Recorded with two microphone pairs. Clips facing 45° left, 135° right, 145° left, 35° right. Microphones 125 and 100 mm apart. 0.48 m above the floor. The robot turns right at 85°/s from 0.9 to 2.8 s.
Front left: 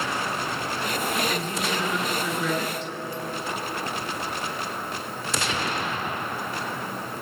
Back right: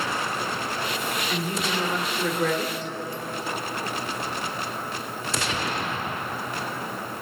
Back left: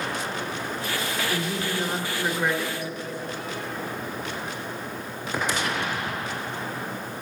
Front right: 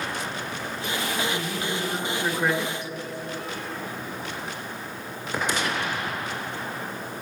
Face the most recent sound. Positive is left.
turn(degrees=-100)